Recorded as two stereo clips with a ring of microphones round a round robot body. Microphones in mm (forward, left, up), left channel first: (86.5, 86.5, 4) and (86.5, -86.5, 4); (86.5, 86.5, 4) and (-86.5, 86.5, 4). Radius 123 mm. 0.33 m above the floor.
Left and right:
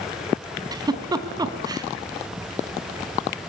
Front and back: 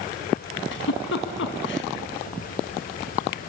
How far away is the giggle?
About 3 m.